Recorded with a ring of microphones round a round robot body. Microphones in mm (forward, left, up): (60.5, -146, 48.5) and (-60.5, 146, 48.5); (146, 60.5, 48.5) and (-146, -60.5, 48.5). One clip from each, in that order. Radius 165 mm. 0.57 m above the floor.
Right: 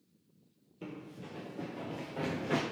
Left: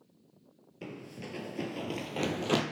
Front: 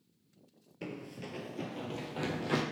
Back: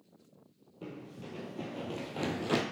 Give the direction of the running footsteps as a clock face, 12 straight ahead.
10 o'clock.